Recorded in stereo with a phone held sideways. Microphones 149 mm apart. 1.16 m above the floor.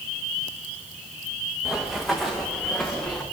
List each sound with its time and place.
1.6 s running footsteps: 5° right (ahead or behind), 5.5 m; by 3.2 s 10° left (ahead or behind), 6 m